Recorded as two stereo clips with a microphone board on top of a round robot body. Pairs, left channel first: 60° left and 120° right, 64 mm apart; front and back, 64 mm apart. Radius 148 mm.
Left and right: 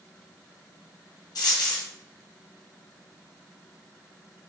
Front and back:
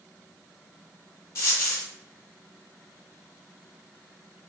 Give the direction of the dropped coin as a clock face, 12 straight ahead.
10 o'clock.